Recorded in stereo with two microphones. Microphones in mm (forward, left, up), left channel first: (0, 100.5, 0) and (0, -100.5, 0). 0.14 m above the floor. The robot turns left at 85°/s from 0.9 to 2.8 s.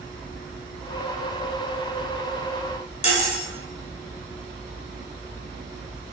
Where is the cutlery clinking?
35° left (ahead or behind), 0.7 m.